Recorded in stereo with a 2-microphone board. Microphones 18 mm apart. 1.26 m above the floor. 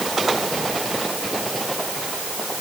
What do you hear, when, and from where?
Only background noise.